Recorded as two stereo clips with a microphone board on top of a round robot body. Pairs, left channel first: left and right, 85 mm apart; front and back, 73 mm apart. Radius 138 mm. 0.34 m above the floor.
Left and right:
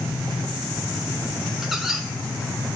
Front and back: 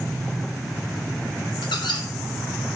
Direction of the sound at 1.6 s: 5° right.